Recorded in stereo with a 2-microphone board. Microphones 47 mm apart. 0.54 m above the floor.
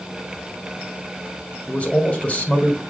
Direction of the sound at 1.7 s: 30° left (ahead or behind).